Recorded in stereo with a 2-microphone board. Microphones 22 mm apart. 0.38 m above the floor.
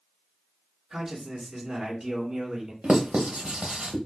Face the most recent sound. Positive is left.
turn(degrees=-60)  # may be behind; listen again after turning